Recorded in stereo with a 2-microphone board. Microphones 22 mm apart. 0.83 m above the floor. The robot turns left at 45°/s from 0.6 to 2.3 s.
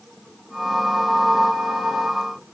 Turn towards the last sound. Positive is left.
No sound to turn to.